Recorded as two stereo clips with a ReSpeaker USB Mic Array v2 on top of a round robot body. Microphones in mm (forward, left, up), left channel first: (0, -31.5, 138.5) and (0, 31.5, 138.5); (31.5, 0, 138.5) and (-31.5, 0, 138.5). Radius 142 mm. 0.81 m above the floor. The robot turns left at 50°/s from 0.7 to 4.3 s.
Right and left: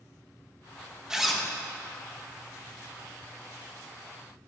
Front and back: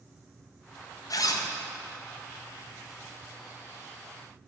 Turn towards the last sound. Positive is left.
turn(degrees=-150)